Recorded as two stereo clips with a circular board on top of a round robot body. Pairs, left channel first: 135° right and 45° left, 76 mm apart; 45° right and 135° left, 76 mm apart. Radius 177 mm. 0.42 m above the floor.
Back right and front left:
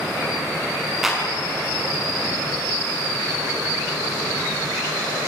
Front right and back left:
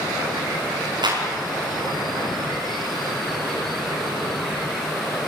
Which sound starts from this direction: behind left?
A clap, at 1.0 s.